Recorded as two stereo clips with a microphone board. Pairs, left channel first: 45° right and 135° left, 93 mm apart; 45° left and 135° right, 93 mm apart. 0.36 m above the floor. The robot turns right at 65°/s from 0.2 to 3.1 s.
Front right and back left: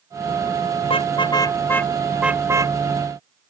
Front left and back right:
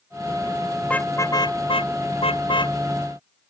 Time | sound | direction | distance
0.8 | a car horn | 35° right | ?